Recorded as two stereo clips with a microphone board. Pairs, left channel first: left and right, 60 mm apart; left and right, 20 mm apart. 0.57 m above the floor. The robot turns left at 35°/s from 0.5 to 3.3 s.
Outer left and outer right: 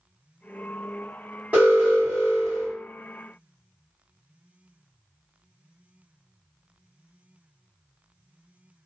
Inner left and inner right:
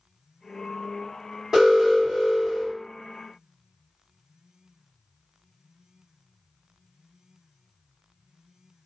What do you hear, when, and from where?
1.5 s an alarm: 125° right, 1.8 m; by 2.7 s 165° right, 1.8 m